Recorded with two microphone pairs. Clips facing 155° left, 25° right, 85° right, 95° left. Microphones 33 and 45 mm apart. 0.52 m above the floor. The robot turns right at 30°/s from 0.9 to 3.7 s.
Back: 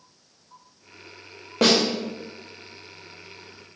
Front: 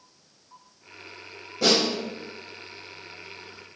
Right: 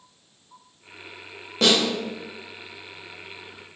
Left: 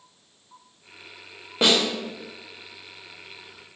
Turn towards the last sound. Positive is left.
turn(degrees=-135)